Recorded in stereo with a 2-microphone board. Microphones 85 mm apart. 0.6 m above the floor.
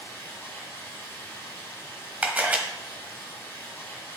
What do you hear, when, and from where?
0.0 s running water: 30° left (ahead or behind), 3.5 m
2.2 s a camera shutter: 15° right (ahead or behind), 1.3 m